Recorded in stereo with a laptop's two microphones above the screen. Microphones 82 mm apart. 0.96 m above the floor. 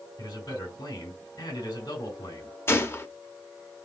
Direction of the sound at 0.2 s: 60° left (ahead or behind).